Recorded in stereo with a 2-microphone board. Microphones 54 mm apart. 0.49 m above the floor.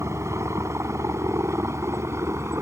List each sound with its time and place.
0.0 s a helicopter: 60° right (ahead or behind)